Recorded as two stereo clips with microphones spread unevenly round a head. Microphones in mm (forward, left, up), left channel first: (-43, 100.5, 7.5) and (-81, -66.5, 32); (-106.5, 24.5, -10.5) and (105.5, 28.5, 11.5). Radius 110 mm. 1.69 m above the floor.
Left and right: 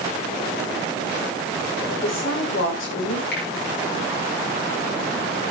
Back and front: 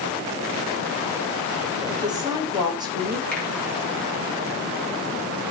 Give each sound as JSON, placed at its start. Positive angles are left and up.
{"t": 1.9, "sound": "a woman speaking", "azimuth_deg": 70, "distance_m": 7.0}
{"t": 3.3, "sound": "a finger snap", "azimuth_deg": 95, "distance_m": 9.0}